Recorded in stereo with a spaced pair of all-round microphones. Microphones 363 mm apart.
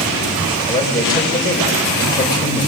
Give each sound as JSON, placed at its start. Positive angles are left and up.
{"t": 0.7, "sound": "a man speaking", "side_deg": 10, "distance_m": 6.0}